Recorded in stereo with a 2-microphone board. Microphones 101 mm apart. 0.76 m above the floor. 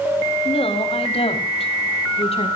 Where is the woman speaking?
80° left, 3.5 m.